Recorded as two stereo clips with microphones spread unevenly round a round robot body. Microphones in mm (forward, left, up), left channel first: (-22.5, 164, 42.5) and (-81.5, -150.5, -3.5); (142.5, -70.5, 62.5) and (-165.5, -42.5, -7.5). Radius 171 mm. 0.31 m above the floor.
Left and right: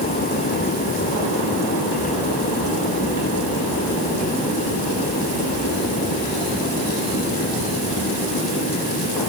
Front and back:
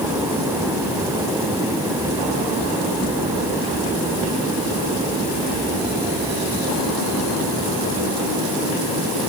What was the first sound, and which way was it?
Only background noise.